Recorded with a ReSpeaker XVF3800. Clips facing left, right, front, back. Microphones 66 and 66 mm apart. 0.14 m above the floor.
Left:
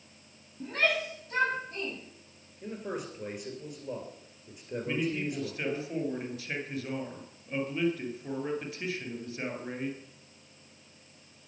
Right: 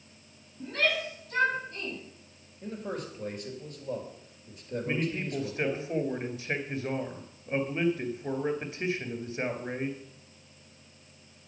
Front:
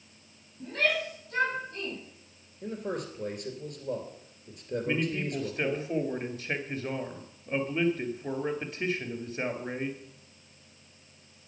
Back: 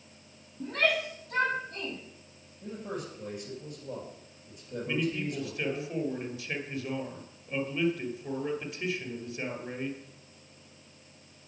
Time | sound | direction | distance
0.6 | a shout | 150° left | 5.5 m
2.6 | a man speaking | 10° left | 3 m
4.8 | a man speaking | 35° right | 2 m